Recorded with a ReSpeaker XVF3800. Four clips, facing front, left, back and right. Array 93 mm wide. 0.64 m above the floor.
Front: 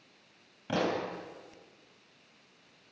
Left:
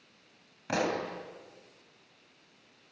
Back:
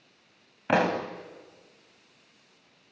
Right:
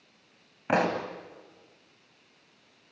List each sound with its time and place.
0.7 s a pop: 150° right, 2.0 m